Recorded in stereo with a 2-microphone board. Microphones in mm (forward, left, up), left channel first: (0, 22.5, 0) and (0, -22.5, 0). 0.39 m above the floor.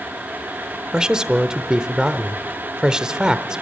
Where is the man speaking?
15° right (ahead or behind), 0.8 m.